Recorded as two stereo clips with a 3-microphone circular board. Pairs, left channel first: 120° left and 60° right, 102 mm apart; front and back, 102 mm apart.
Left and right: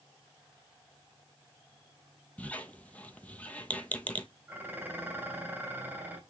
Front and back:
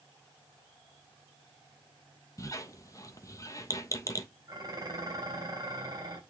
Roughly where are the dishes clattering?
Behind right.